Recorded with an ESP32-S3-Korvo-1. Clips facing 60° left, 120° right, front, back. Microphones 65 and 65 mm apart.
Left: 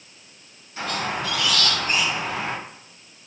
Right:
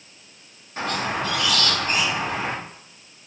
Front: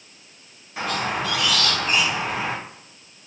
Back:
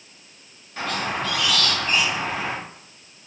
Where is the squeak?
80° right, 1.0 m.